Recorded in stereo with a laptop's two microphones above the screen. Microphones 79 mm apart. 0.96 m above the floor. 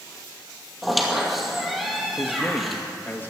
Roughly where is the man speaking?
Left.